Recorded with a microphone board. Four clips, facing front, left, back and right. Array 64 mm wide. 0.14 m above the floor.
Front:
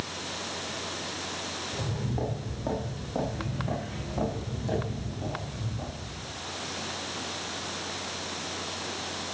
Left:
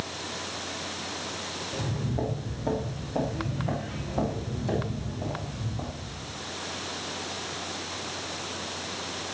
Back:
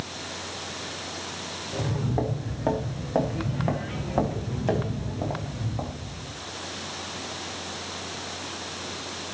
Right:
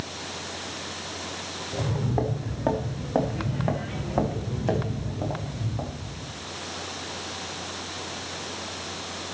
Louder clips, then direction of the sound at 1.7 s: Right 5 dB, back 7 dB; 115° right.